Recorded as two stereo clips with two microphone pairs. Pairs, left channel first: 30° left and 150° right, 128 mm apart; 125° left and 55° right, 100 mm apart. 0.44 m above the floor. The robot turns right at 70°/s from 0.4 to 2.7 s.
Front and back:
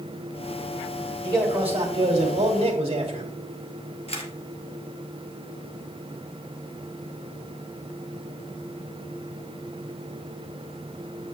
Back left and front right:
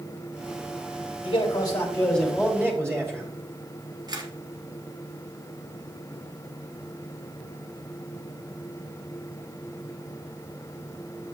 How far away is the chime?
No chime in this recording.